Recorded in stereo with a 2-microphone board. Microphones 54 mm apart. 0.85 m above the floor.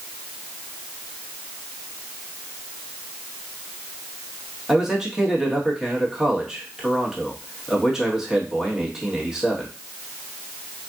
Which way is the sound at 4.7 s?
5° right (ahead or behind).